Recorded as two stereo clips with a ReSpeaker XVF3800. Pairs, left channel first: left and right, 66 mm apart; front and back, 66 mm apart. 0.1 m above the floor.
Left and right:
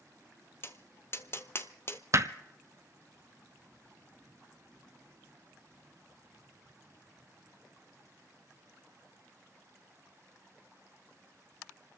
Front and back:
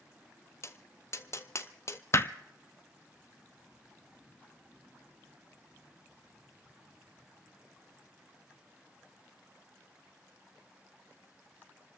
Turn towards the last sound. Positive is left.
turn(degrees=-50)